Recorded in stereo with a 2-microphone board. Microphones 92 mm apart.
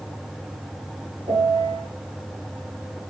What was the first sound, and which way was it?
A piano, 80° right.